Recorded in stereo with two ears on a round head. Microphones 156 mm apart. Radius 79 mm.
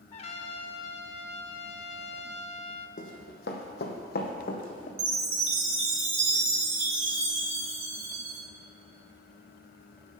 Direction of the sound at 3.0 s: 50° left (ahead or behind).